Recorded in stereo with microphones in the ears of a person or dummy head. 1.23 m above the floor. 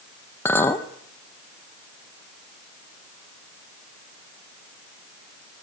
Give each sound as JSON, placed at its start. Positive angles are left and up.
{"t": 0.5, "sound": "a clink", "side_deg": 15, "distance_m": 0.8}